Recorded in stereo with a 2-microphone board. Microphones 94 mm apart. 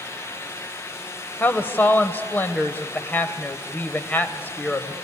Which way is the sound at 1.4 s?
20° left (ahead or behind).